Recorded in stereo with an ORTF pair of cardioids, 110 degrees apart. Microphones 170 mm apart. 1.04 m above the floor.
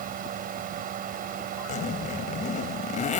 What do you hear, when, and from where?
0.0 s a fan: 55° right
1.7 s a zipper: 45° left